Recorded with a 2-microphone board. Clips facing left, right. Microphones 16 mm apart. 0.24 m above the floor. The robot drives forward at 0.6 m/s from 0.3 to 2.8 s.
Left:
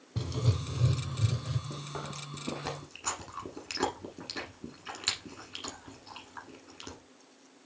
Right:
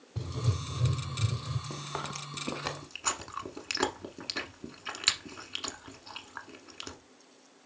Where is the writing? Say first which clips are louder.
Left 2 dB; 30° left (ahead or behind), 0.8 m; by 1.6 s 15° left (ahead or behind), 1.5 m.